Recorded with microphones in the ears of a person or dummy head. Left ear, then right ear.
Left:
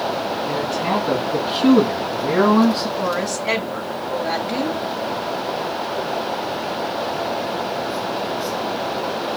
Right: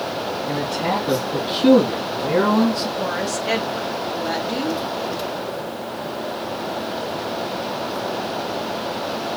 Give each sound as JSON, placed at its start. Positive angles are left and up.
{"t": 0.5, "sound": "a man speaking", "side_deg": 10, "distance_m": 3.5}
{"t": 3.0, "sound": "a woman speaking", "side_deg": 25, "distance_m": 1.9}